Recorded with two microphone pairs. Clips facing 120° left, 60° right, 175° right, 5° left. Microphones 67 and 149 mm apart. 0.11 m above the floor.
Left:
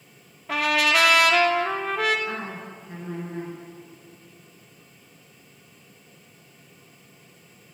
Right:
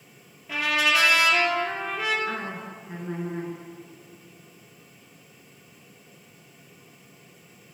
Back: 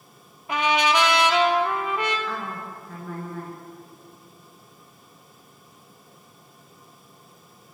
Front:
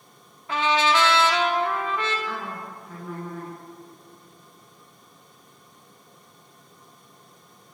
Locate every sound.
0.5 s a trumpet: 110° left, 0.6 m
2.3 s a woman speaking: 65° right, 1.3 m